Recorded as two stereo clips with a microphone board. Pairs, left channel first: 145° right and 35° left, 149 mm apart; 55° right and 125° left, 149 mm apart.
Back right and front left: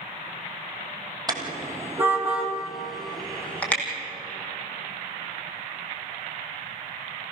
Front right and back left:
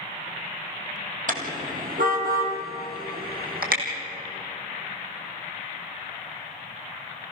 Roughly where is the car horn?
Left.